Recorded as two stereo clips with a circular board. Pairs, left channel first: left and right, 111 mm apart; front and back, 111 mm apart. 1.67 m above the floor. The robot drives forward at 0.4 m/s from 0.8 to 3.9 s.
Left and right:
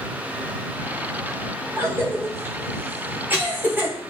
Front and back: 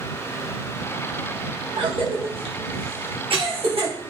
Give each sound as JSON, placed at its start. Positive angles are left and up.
{"t": 1.8, "sound": "a cough", "azimuth_deg": -155, "distance_m": 1.7}